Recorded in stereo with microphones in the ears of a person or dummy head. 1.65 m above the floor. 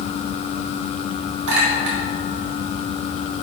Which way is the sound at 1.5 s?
70° right (ahead or behind).